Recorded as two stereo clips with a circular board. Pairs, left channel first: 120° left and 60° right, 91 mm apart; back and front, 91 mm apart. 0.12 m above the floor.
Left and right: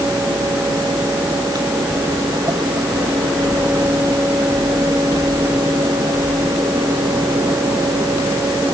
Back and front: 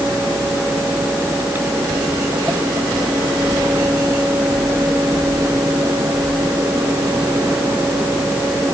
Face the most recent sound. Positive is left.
No sound to turn to.